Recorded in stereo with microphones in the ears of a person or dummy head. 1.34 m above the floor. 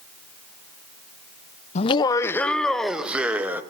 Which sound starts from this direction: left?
Laughter, at 1.8 s.